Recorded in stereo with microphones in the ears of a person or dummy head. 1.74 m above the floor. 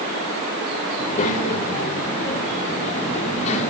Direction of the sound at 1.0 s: 40° left (ahead or behind).